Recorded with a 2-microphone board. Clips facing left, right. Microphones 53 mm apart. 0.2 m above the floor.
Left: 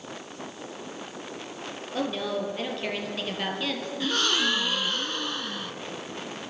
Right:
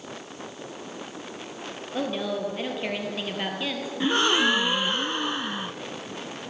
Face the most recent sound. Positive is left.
turn(degrees=-20)  # may be behind; listen again after turning